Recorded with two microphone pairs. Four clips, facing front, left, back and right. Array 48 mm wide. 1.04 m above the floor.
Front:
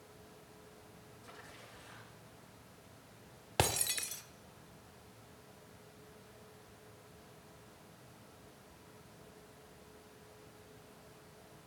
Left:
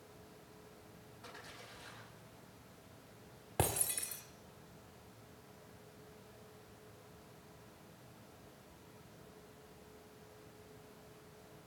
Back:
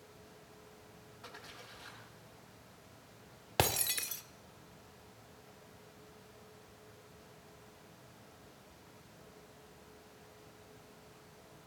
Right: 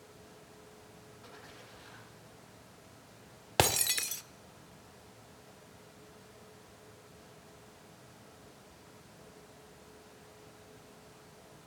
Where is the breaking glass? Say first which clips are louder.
Right 8 dB, back 1 dB; 95° right, 0.9 m.